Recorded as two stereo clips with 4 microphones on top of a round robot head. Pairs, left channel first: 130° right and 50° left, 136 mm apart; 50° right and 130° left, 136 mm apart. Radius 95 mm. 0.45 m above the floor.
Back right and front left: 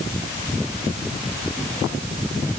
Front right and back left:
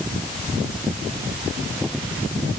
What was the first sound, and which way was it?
Only background noise.